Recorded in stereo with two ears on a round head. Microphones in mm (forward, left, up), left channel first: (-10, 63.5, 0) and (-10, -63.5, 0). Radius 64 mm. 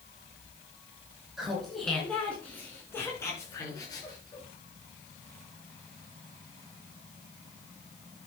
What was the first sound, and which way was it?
Laughter, centre (ahead or behind).